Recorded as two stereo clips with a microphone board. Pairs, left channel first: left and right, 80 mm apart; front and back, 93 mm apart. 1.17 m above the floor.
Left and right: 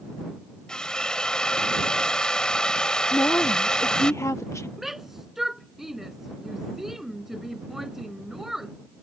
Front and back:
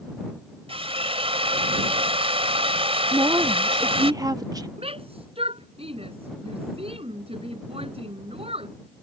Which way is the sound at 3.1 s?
140° left.